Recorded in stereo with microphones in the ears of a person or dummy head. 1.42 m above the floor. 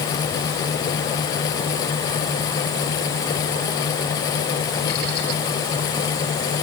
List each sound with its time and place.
Only background noise.